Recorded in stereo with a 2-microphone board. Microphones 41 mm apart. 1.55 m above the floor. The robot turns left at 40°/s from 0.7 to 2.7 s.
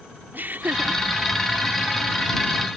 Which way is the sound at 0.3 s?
45° right (ahead or behind).